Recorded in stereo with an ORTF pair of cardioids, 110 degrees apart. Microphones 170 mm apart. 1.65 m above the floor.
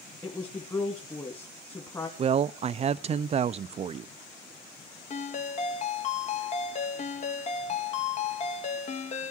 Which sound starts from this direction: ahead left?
A ringtone, at 5.1 s.